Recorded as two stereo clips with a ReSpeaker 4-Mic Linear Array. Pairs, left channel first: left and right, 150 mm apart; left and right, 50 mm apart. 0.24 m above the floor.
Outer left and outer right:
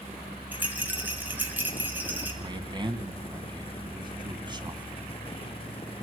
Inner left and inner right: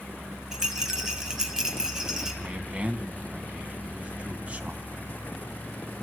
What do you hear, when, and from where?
0.5 s a rattle: 10° right (ahead or behind), 2.5 m
2.4 s a man speaking: 30° right (ahead or behind), 1.9 m